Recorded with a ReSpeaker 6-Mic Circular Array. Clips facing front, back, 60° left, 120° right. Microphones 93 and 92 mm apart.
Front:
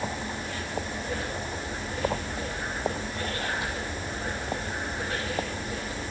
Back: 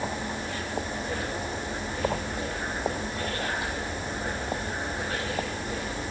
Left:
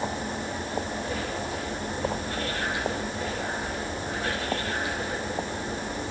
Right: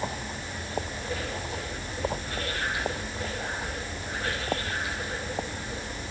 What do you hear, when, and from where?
Only background noise.